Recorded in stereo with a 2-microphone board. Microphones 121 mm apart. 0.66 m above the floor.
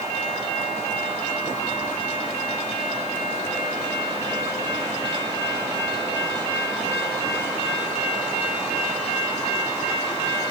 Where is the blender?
I don't hear a blender.